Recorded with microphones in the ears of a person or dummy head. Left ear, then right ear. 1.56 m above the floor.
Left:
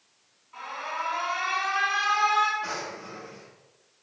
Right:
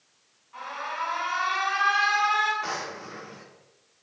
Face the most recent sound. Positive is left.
turn(degrees=-30)  # may be behind; listen again after turning